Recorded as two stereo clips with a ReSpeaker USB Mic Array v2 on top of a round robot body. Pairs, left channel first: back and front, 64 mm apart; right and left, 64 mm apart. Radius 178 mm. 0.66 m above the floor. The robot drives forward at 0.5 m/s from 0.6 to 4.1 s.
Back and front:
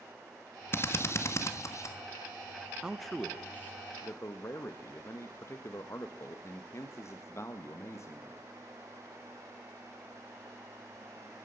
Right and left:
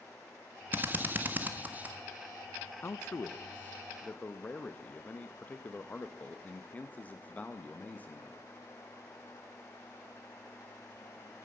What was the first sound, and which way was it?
A drill, 140° left.